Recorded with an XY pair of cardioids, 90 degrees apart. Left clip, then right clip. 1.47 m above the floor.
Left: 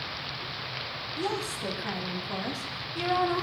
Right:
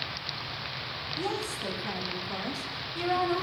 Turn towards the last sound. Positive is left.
turn(degrees=10)